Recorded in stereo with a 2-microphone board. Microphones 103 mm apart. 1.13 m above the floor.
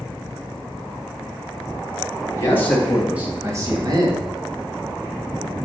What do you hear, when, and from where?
2.3 s a man speaking: 30° left (ahead or behind), 1.5 m; by 4.3 s 55° right (ahead or behind), 2.5 m